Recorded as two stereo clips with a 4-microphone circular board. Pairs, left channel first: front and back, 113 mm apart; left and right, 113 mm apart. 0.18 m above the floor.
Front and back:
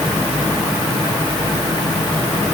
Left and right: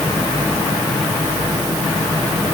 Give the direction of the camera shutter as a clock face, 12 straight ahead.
No camera shutter in this recording.